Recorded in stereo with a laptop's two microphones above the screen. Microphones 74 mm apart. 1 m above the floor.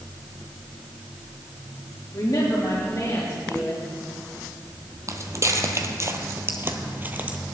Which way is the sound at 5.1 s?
45° right (ahead or behind).